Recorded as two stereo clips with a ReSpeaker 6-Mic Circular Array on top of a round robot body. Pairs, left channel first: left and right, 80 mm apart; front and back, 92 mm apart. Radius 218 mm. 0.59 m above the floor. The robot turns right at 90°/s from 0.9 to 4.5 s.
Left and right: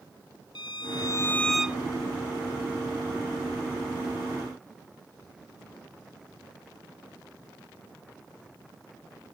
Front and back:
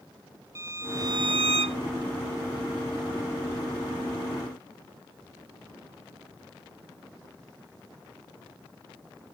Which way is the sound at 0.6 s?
120° left.